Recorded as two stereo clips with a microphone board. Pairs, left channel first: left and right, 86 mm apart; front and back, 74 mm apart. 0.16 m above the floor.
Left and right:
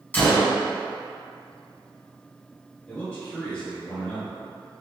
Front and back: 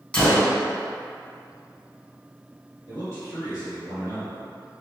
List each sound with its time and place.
0.1 s a gunshot: 55° left, 1.1 m
2.9 s a man speaking: 145° left, 1.6 m